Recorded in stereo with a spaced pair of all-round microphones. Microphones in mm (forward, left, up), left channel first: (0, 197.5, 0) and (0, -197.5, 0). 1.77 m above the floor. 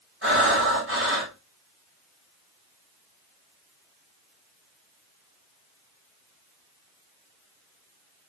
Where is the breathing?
30° right (ahead or behind), 7.5 m.